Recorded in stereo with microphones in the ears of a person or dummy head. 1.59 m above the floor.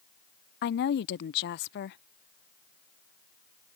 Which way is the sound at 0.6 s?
55° left (ahead or behind).